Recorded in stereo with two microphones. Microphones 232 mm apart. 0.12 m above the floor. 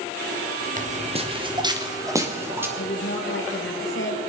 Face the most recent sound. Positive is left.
turn(degrees=55)  # may be behind; listen again after turning